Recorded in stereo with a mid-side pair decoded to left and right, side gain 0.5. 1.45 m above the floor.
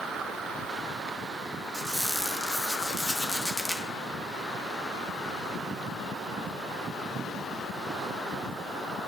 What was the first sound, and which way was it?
A squeak, 5° left.